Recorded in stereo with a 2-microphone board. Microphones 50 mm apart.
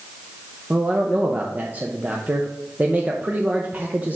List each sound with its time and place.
0.7 s a man speaking: 35° right (ahead or behind), 0.6 m